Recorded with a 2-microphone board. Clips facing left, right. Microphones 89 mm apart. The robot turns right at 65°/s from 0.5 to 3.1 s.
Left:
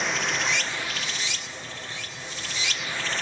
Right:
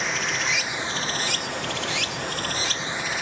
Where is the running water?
Straight behind, 0.7 m; by 3.2 s 10° right, 0.7 m.